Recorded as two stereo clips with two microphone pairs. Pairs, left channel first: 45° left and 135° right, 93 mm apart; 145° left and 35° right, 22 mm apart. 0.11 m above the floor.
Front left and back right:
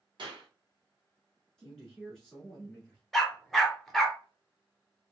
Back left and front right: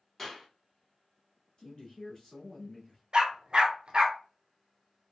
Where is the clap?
135° right, 1.8 m.